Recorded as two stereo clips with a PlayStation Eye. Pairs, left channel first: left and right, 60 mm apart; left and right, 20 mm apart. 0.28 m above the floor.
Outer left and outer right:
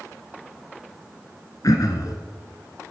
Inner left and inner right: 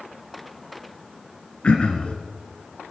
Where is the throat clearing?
70° left (ahead or behind), 1.9 m.